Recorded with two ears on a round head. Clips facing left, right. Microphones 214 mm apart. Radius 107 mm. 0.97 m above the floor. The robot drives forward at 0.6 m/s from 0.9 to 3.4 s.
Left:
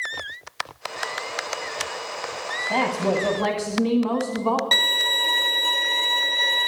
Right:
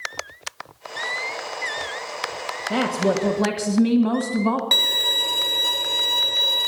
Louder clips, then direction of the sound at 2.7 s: Right 2 dB; 30° right (ahead or behind).